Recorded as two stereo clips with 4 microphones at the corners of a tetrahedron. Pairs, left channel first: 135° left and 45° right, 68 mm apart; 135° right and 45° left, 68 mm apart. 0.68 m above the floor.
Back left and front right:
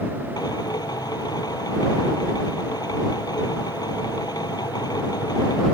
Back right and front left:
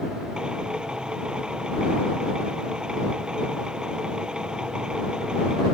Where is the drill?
120° left.